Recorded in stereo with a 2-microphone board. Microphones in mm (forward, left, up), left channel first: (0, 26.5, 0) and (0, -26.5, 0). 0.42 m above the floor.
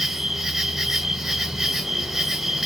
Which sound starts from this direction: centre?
An insect, at 0.0 s.